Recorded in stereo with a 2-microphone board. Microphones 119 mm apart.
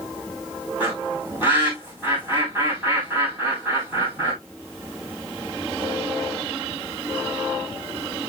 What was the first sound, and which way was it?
A bird, 15° right (ahead or behind).